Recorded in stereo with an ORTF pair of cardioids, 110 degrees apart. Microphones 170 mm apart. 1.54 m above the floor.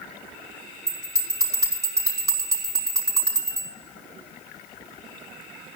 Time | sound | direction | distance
0.9 | a bell | 20° right | 5 m